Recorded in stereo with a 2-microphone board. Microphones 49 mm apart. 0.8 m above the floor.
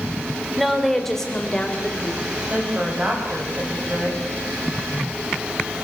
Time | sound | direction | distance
0.6 | a woman speaking | 5° right (ahead or behind) | 3 m
2.5 | a woman speaking | 30° right (ahead or behind) | 5.5 m